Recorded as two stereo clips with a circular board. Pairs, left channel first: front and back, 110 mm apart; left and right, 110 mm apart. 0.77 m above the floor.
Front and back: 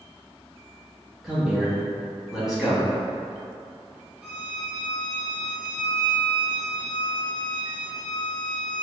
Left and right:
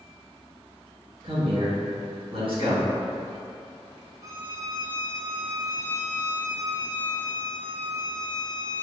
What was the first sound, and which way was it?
A man speaking, 95° right.